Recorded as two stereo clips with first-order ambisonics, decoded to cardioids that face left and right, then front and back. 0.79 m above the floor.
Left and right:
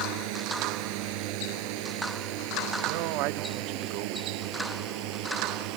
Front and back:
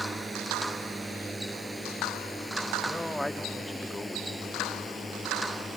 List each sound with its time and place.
0.0 s a drone: 100° right; by 5.8 s 80° right
2.9 s a man speaking: 85° right